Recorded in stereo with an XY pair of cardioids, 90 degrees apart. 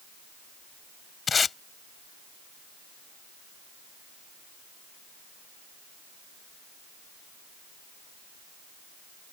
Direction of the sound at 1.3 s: 45° left.